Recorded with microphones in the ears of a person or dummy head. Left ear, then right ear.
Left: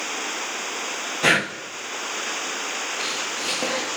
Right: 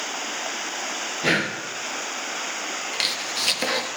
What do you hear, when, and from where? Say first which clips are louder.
1.2 s breathing: left 3 dB; 45° left (ahead or behind), 1.2 m
2.9 s chopping: right 1 dB; 65° right (ahead or behind), 1.6 m